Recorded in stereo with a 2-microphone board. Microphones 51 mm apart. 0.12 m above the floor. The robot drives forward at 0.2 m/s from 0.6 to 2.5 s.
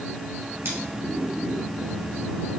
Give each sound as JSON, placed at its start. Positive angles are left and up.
{"t": 0.7, "sound": "scissors", "side_deg": -55, "distance_m": 1.9}